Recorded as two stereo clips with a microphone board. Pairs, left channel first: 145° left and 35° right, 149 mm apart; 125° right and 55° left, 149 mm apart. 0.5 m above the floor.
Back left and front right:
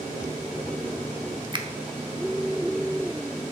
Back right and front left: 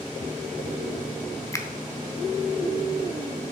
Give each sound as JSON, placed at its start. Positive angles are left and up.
{"t": 1.5, "sound": "a finger snap", "azimuth_deg": -70, "distance_m": 0.7}